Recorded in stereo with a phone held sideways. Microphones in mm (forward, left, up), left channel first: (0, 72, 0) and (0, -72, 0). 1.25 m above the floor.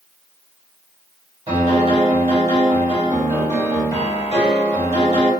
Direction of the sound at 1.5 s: 50° right (ahead or behind).